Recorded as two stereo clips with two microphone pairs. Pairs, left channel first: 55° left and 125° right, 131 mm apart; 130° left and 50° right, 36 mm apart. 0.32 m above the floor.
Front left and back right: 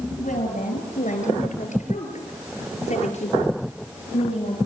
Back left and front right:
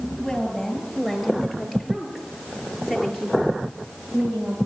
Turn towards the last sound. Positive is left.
turn(degrees=15)